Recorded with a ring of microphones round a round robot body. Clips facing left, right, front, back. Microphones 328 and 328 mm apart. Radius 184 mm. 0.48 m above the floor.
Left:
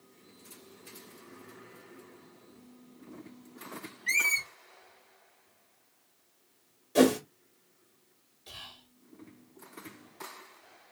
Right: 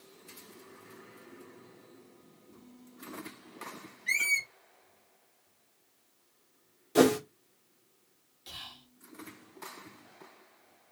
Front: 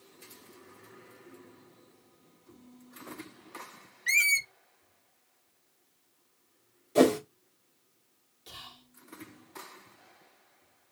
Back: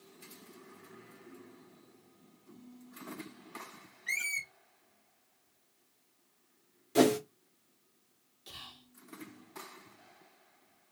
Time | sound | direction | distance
4.1 | a squeak | 5° left | 0.7 m
7.0 | a whoosh | 145° right | 1.2 m
8.5 | whispering | 100° right | 1.3 m